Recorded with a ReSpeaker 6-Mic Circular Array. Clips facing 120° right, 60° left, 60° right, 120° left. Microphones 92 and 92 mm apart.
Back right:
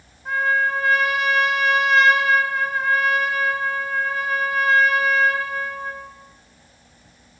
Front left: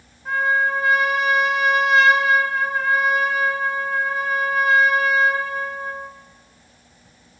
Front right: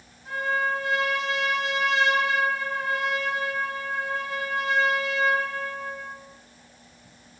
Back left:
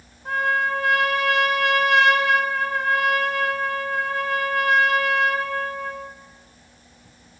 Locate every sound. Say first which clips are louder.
0.2 s a trumpet: front left 1 dB, back left 4 dB; 150° left, 4 m